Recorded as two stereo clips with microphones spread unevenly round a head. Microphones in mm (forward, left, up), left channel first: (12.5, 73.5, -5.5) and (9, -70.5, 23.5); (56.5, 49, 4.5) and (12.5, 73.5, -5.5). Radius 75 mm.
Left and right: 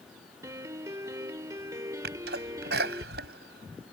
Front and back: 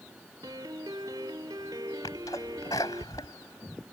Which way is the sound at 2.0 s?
80° right.